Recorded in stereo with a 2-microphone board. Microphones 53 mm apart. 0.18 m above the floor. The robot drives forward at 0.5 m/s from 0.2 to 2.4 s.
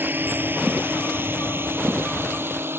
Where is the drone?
40° right (ahead or behind); by 2.8 s 45° right (ahead or behind).